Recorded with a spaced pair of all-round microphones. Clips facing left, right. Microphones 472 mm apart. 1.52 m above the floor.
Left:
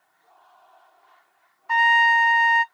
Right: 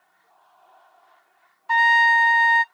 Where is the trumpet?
55° right (ahead or behind), 0.5 m.